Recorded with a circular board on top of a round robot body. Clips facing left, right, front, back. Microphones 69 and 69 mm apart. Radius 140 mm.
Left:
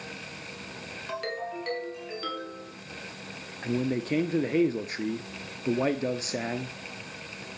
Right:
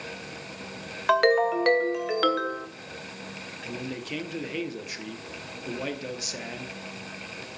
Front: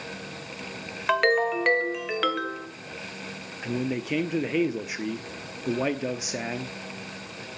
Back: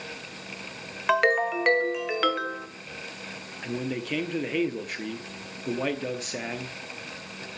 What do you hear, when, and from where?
1.1 s a ringtone: 95° right, 1.9 m
3.6 s a man speaking: 75° left, 1.1 m